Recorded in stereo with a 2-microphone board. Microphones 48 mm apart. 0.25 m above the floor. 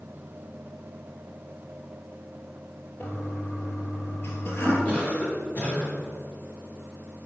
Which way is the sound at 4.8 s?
35° left (ahead or behind).